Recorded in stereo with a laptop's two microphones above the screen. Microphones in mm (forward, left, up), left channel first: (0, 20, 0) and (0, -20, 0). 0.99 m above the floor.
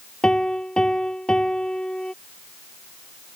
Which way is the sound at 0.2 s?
20° left (ahead or behind).